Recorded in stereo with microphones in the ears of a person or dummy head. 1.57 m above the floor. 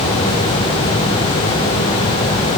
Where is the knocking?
No knocking in this recording.